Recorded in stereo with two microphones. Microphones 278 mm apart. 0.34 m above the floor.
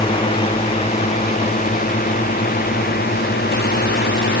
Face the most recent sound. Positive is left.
turn(degrees=40)  # may be behind; listen again after turning